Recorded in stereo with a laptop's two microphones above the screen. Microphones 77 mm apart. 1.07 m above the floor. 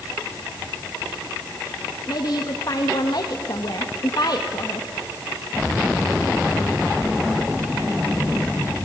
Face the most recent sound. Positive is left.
turn(degrees=55)  # may be behind; listen again after turning